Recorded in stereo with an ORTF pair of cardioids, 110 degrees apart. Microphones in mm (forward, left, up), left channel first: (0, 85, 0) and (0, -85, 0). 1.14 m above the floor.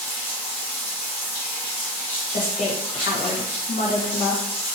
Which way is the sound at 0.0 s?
10° left.